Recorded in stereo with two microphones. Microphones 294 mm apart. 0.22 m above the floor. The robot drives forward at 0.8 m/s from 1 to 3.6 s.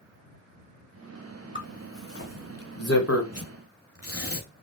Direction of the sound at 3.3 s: 55° left (ahead or behind).